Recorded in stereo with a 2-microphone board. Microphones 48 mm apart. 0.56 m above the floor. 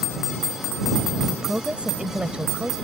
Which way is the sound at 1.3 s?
25° right (ahead or behind).